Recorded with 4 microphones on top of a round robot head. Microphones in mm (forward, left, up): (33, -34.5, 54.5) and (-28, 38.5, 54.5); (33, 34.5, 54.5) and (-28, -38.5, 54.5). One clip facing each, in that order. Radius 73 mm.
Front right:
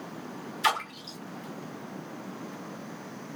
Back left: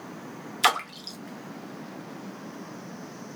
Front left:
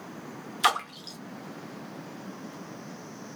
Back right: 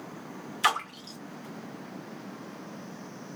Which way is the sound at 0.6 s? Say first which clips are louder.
Back left 3 dB, front left 2 dB; 120° left.